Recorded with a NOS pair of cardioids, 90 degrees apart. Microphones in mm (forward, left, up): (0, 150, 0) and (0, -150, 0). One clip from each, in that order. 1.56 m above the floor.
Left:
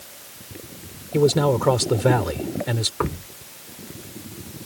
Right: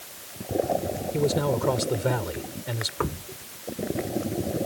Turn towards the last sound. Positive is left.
turn(degrees=25)